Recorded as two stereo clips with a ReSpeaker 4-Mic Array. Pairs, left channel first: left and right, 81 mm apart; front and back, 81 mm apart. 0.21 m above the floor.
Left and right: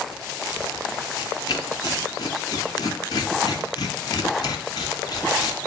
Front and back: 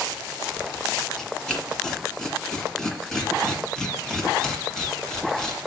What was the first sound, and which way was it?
Tearing paper, 80° left.